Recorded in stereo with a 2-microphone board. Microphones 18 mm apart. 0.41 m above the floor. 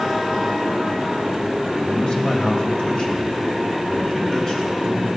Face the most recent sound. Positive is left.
turn(degrees=25)  # may be behind; listen again after turning